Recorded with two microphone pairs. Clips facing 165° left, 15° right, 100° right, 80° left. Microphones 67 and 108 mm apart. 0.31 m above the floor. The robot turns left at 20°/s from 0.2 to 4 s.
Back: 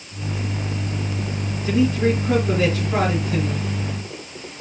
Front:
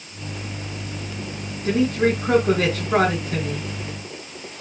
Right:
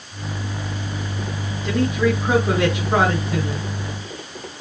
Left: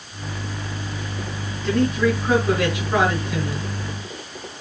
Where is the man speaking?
15° right, 3.5 m; by 3.7 s 55° right, 3.5 m.